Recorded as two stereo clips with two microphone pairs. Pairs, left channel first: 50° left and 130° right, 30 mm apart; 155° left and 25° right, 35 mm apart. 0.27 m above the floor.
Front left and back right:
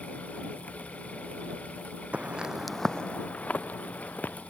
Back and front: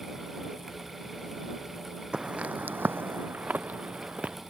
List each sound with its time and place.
2.1 s footsteps: 85° right; by 4.4 s 30° left